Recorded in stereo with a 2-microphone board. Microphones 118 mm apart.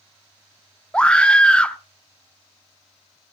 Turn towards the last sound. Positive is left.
turn(degrees=10)  # may be behind; listen again after turning